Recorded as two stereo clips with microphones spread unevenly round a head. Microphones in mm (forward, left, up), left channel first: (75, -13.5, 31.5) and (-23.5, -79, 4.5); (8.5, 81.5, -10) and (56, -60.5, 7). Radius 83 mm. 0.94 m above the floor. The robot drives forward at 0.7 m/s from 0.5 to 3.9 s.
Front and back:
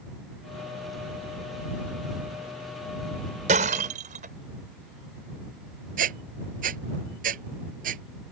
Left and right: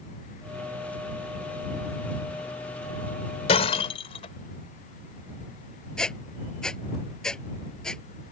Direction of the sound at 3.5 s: 165° left.